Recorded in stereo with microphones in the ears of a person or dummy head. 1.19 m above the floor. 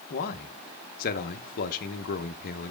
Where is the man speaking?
45° left (ahead or behind), 0.9 m.